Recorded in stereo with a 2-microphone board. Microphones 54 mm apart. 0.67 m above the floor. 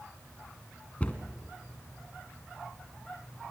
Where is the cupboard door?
25° left (ahead or behind), 1.9 m.